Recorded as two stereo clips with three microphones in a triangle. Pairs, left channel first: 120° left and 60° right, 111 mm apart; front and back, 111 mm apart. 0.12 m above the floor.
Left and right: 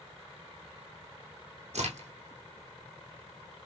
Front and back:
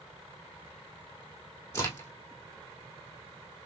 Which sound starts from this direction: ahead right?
A crack, at 1.7 s.